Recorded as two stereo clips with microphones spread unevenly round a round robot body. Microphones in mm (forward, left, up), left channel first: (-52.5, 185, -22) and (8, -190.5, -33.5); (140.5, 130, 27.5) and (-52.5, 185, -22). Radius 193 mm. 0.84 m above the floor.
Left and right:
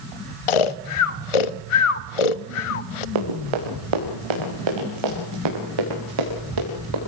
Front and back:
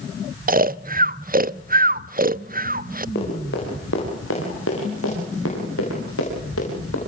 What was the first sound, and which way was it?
Snoring, 110° left.